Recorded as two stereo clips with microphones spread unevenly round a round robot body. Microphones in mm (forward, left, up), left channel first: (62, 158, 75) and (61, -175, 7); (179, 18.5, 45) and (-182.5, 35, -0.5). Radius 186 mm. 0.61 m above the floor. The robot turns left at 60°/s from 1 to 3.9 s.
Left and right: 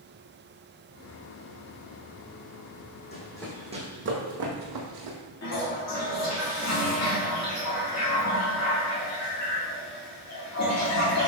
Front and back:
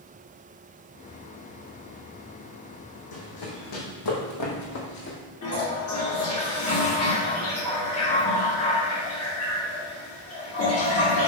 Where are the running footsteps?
35° left, 2 m; by 5.2 s 60° right, 1.6 m.